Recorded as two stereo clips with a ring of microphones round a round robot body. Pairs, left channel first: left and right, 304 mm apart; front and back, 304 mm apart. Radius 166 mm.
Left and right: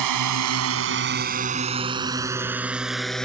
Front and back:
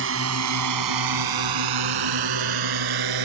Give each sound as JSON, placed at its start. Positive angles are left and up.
{"t": 0.0, "sound": "a drone", "azimuth_deg": -125}